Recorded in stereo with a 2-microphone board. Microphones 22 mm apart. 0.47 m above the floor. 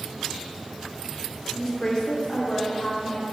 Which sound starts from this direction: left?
A woman speaking, at 1.6 s.